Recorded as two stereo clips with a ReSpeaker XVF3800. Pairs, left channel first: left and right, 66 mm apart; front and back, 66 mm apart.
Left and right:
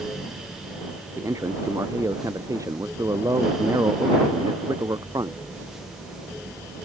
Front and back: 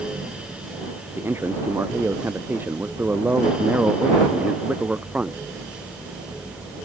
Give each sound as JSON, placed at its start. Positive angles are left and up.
{"t": 1.2, "sound": "a man speaking", "azimuth_deg": -130}